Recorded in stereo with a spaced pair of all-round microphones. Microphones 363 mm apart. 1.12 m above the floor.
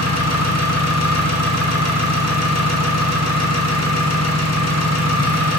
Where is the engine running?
45° left (ahead or behind), 0.9 m.